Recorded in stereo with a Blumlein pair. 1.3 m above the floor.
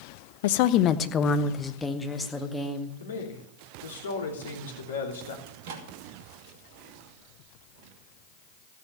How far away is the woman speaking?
About 0.7 m.